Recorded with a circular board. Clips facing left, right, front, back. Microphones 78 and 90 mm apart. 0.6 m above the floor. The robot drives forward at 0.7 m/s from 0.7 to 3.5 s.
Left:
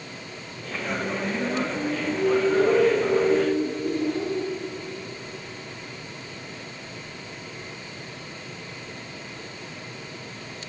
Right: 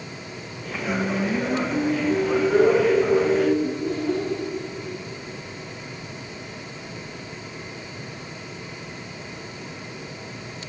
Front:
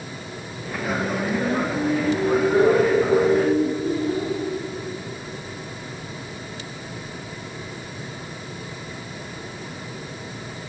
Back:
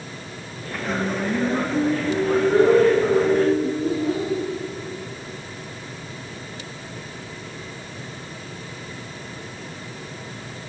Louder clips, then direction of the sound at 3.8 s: Right 1 dB, back 1 dB; 150° right.